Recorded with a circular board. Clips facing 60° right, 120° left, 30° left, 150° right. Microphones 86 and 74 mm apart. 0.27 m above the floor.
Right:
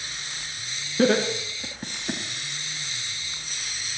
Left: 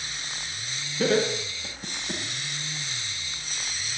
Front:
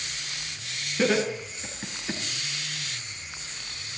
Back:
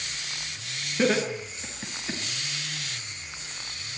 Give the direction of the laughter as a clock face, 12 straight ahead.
2 o'clock.